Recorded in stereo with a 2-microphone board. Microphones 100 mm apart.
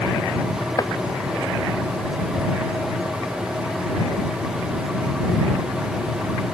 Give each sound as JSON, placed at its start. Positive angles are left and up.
{"t": 0.8, "sound": "chopping", "side_deg": 40}